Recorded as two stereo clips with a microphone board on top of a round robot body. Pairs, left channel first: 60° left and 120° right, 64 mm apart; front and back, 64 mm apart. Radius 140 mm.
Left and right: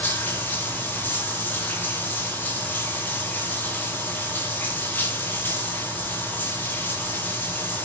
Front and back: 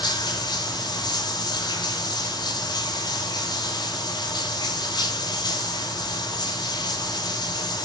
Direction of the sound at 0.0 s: 5° right.